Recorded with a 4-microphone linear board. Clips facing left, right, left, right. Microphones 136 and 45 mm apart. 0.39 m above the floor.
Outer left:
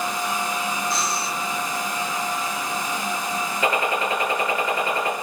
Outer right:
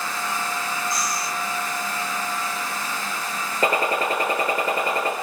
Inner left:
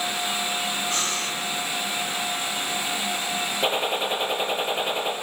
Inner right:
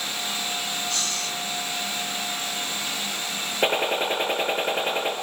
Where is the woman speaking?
No woman speaking in this recording.